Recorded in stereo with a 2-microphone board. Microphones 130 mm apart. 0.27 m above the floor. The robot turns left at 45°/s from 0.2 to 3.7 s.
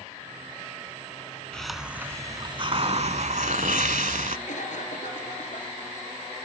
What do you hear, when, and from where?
1.5 s a hiss: 5° left, 0.8 m; by 4.4 s 90° right, 0.8 m
4.5 s a cough: 70° left (ahead or behind), 4 m